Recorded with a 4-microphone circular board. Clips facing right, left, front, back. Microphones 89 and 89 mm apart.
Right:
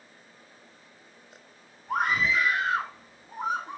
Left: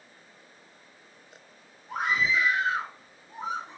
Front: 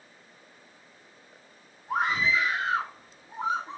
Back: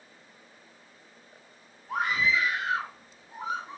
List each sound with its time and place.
1.9 s a scream: 65° right, 7.5 m